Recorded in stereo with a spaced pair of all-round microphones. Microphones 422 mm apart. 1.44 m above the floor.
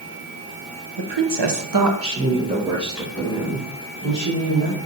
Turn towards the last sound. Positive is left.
turn(degrees=15)  # may be behind; listen again after turning